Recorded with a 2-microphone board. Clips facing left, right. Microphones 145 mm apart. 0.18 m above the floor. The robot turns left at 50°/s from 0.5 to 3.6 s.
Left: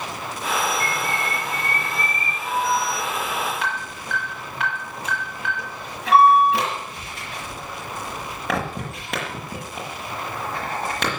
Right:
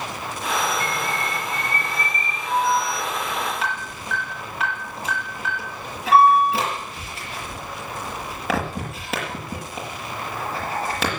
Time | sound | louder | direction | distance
0.8 | a bird | even | 150° right | 5 m
2.5 | an alarm | right 2 dB | 50° left (ahead or behind) | 5.5 m